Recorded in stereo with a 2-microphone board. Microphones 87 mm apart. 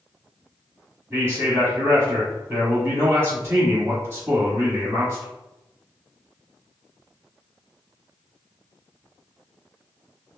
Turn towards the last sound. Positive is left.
turn(degrees=-25)  # may be behind; listen again after turning